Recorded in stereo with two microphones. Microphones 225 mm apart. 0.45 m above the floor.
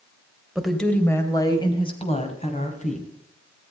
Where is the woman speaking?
Centre (ahead or behind), 2.5 m; by 3.1 s 35° left (ahead or behind), 4.5 m.